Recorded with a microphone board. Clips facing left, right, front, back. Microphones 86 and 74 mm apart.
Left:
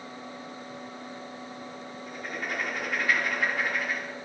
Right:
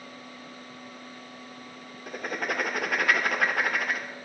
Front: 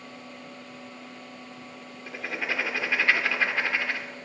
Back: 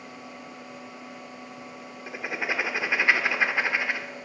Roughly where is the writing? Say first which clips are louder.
Right 4 dB, back 1 dB; right.